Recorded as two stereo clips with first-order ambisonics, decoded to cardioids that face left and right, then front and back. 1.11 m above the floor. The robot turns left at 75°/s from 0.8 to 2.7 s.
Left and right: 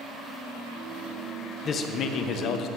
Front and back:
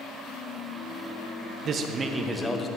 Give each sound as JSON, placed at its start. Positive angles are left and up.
{"t": 1.6, "sound": "a man speaking", "azimuth_deg": 145, "distance_m": 0.6}